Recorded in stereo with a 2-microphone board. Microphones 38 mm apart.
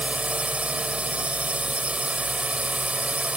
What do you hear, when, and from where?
0.0 s a drone: 30° right (ahead or behind)